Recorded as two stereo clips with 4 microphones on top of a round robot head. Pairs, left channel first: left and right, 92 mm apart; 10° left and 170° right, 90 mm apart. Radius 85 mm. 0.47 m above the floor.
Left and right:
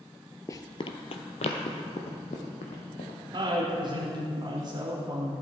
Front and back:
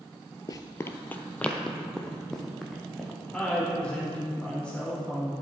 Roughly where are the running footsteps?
Ahead left.